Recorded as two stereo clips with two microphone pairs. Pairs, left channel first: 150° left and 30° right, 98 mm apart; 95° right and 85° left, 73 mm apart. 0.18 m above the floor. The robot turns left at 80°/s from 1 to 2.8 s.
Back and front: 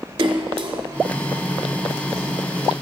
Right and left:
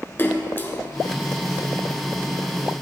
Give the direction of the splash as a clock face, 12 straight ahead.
1 o'clock.